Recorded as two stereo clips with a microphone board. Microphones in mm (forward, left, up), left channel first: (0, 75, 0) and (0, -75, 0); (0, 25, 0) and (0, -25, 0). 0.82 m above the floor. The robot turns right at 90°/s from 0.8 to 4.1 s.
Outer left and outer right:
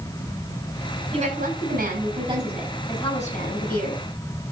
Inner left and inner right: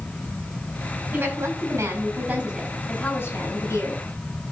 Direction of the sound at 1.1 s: 145° right.